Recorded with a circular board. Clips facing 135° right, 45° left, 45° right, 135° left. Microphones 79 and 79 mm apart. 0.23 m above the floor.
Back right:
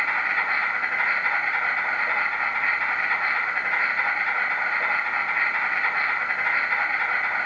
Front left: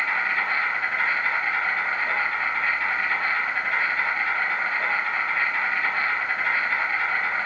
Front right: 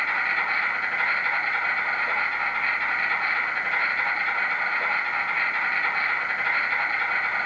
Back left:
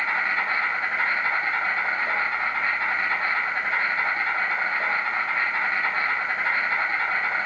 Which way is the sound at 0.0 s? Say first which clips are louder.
Even, back left 1 dB; 160° left.